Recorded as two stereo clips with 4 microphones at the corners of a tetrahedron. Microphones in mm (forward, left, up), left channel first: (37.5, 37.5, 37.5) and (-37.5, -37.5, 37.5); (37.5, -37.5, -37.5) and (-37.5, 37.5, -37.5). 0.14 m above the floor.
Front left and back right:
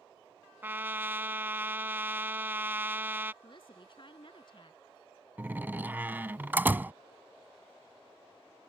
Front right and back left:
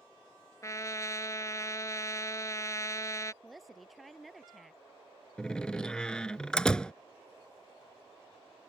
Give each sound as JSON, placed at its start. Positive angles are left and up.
{"t": 0.6, "sound": "a trumpet", "azimuth_deg": -75}
{"t": 3.4, "sound": "a woman speaking", "azimuth_deg": 45}
{"t": 5.4, "sound": "a door slam", "azimuth_deg": -110}